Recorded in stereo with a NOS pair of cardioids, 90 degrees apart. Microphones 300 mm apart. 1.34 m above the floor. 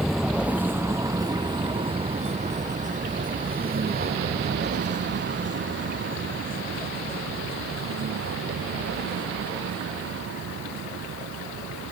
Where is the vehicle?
Straight ahead; by 11.9 s 55° right.